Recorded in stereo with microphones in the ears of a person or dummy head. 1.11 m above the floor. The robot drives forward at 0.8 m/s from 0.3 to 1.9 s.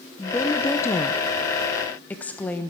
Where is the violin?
No violin in this recording.